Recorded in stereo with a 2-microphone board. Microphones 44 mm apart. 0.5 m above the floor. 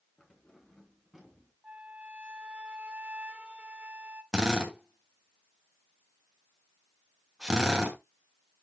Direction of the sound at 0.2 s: 20° left (ahead or behind).